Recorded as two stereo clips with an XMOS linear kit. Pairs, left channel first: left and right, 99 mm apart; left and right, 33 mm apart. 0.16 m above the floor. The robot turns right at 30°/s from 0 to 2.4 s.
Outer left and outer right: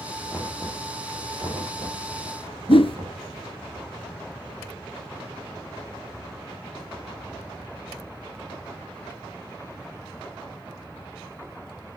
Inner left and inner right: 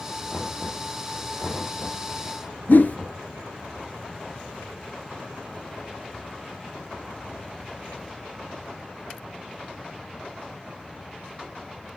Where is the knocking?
Centre (ahead or behind), 5 m; by 3.2 s 60° right (ahead or behind), 5 m.